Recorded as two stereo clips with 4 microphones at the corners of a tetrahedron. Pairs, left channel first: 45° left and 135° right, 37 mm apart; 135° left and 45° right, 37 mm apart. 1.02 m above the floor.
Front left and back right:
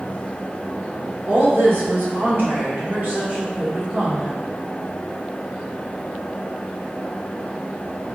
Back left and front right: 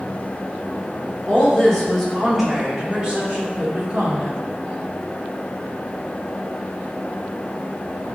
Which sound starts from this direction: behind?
A woman speaking, at 1.3 s.